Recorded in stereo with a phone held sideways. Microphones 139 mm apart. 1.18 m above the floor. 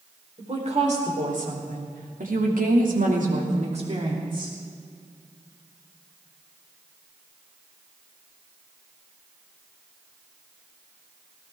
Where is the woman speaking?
50° right (ahead or behind), 4.5 m; by 4.5 s 30° right (ahead or behind), 3.5 m.